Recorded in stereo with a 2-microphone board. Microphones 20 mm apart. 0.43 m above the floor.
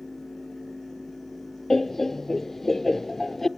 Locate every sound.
1.7 s laughter: 20° left (ahead or behind), 0.7 m